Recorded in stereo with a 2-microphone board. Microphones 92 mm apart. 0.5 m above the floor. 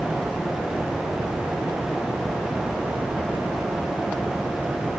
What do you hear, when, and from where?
Only background noise.